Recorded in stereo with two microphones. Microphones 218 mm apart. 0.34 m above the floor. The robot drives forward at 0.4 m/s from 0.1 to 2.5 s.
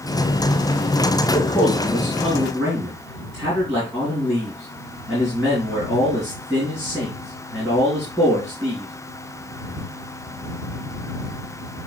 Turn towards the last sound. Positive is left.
turn(degrees=-5)  # may be behind; listen again after turning